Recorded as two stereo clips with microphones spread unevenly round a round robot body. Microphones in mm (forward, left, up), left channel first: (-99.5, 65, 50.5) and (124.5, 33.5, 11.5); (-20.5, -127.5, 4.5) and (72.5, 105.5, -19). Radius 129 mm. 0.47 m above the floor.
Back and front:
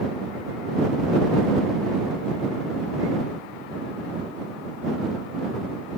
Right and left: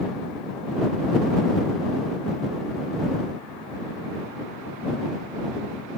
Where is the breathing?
I don't hear breathing.